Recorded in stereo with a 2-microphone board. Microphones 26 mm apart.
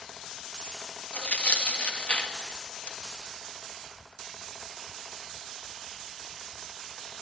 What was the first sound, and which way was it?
Tearing paper, 65° left (ahead or behind).